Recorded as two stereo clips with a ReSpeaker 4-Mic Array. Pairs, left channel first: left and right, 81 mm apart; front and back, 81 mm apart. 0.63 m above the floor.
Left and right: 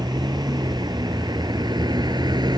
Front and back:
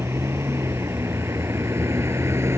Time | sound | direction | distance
0.0 | a vehicle | 125° right | ?